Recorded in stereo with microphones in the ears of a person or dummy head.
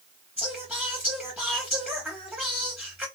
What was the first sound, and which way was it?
Singing, 10° right (ahead or behind).